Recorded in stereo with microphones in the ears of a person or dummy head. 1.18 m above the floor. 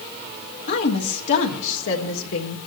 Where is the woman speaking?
50° left (ahead or behind), 2 m; by 2.6 s 70° left (ahead or behind), 1.9 m.